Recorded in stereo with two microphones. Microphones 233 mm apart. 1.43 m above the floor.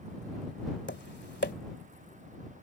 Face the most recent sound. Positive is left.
turn(degrees=50)  # may be behind; listen again after turning